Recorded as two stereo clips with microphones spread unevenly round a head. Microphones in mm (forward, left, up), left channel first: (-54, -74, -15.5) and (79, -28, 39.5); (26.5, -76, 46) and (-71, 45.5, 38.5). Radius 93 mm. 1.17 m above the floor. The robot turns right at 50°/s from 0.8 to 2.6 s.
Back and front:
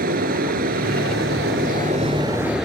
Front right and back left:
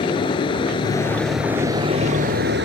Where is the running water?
15° left; by 2.7 s 105° left.